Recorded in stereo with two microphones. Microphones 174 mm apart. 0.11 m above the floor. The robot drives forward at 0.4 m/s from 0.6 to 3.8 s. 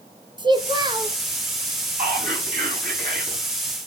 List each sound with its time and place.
0.4 s a child speaking: 30° right (ahead or behind), 1.4 m; by 1.2 s 25° right (ahead or behind), 1.5 m
2.0 s whispering: 60° right (ahead or behind), 8.5 m; by 3.4 s 65° right (ahead or behind), 8 m